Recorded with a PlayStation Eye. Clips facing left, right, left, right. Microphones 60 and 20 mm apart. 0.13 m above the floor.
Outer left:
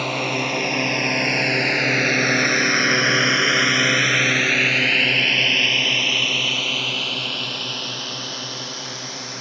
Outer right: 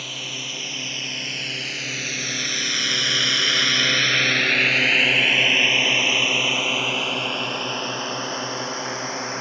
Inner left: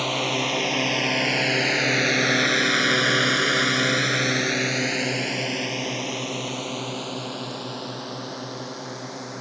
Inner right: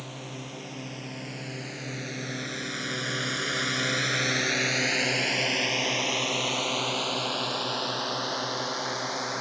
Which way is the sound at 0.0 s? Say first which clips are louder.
Outer left 11 dB, inner left 16 dB; 55° left (ahead or behind).